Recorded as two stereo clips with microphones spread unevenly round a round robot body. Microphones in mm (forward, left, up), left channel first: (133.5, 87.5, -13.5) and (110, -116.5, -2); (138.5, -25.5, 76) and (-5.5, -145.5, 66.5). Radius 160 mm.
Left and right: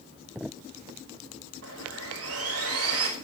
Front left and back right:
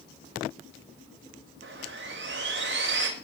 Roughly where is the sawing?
Behind right.